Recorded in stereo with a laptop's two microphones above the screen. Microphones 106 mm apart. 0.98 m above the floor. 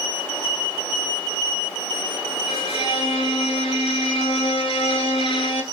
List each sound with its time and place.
2.5 s a violin: 55° left (ahead or behind), 1.7 m